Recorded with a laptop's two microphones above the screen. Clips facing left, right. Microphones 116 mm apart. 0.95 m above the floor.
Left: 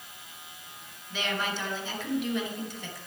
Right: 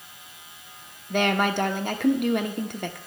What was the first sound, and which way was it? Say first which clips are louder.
A woman speaking: right 10 dB; 60° right (ahead or behind).